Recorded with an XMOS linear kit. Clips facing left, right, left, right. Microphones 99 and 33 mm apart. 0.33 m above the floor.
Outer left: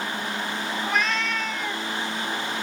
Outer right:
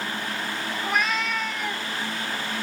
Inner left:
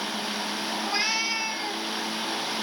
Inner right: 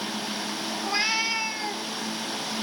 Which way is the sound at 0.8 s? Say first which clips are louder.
Outer right 1 dB, inner right 2 dB; 5° right (ahead or behind).